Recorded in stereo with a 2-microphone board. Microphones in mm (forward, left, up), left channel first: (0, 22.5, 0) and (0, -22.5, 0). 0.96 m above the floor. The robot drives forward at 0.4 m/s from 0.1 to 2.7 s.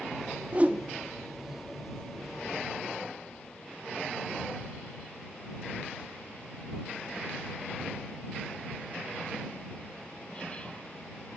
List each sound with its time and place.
0.5 s a whoosh: 30° right (ahead or behind), 0.5 m; by 0.8 s 35° right (ahead or behind), 0.5 m